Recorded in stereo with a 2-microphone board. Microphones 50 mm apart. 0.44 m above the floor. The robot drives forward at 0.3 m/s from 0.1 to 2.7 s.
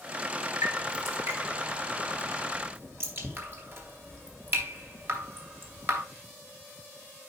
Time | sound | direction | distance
0.6 | dripping | 55° right (ahead or behind) | 2.5 m